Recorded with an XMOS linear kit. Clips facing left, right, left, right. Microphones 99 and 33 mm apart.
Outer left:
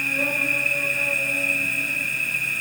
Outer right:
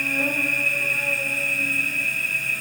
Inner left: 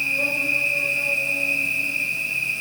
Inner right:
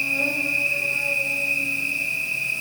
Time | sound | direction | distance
0.0 | an insect | 65° left (ahead or behind) | 1.6 m